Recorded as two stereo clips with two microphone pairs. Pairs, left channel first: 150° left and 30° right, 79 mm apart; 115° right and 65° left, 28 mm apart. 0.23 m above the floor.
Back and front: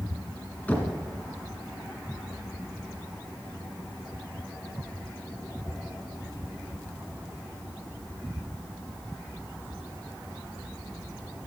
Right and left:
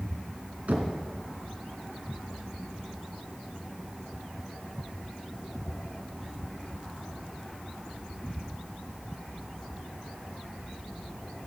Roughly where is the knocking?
Left.